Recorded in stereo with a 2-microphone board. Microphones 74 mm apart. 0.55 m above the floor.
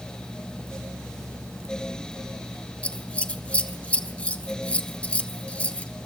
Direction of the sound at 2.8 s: 20° left (ahead or behind).